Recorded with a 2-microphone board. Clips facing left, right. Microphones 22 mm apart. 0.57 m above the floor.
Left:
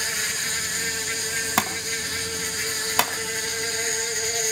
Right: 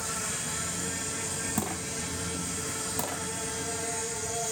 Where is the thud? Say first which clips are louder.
Left 8 dB; 70° left (ahead or behind), 2.5 m.